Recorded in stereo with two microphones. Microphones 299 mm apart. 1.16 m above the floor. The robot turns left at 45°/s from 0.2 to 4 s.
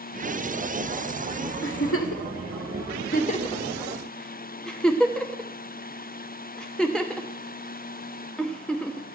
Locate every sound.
1.6 s a giggle: 45° left (ahead or behind), 0.9 m; by 9.1 s 5° left (ahead or behind), 0.9 m